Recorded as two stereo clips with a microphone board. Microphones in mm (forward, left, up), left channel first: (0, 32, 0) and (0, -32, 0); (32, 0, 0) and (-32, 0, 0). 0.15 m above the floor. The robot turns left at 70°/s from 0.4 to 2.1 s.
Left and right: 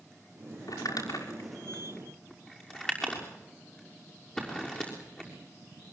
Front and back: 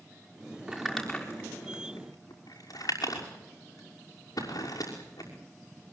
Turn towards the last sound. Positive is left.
turn(degrees=15)